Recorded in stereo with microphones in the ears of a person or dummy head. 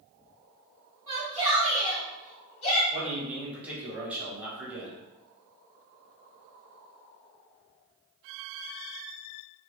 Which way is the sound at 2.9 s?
5° right (ahead or behind).